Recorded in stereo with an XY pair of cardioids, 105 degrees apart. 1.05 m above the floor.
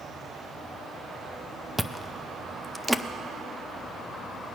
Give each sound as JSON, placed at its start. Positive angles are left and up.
{"t": 1.8, "sound": "chewing", "azimuth_deg": 0, "distance_m": 0.5}